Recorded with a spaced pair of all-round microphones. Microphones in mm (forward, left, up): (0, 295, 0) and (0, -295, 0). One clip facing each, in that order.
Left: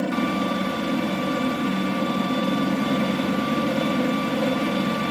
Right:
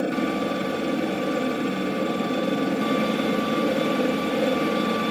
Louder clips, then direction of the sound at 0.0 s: Even; 25° left (ahead or behind).